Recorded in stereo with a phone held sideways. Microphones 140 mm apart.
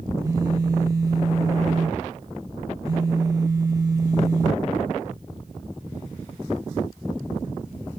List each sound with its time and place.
0.2 s a phone buzzing: 25° right (ahead or behind), 0.8 m